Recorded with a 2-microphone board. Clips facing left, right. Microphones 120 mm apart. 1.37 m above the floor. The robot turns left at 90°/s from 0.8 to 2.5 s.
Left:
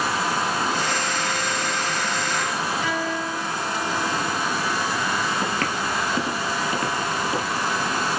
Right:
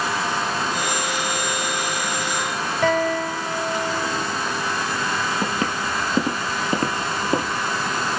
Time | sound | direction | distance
2.8 | a guitar | 70° right (ahead or behind) | 2.5 m
5.4 | footsteps | 15° right (ahead or behind) | 1.6 m